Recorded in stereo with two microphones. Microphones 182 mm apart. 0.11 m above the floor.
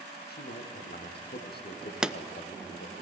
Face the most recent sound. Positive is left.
turn(degrees=-5)  # may be behind; listen again after turning